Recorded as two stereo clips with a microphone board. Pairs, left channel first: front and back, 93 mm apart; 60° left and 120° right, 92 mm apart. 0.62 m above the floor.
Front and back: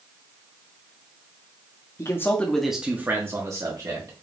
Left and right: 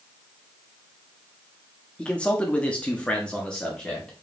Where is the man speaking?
10° right, 0.6 m; by 4.1 s 140° left, 1.1 m.